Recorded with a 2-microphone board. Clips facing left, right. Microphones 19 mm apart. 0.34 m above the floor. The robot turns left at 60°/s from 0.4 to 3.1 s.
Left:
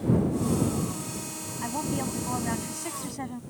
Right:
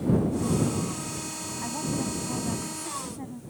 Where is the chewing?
I don't hear chewing.